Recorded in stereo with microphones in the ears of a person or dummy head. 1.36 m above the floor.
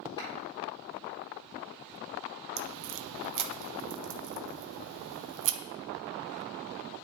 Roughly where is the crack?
Right.